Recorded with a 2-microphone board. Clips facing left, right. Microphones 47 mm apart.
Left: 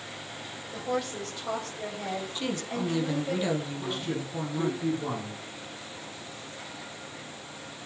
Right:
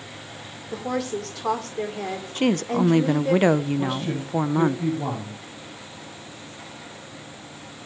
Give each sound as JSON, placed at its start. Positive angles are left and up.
{"t": 0.7, "sound": "a woman speaking", "side_deg": -80, "distance_m": 5.0}
{"t": 2.4, "sound": "a woman speaking", "side_deg": -50, "distance_m": 1.0}
{"t": 3.8, "sound": "a man speaking", "side_deg": -80, "distance_m": 7.5}